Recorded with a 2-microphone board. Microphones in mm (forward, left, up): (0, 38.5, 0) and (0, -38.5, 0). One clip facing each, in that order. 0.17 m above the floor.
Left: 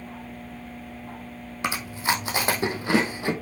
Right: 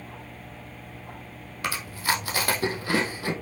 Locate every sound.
1.6 s chewing: 20° left (ahead or behind), 2.5 m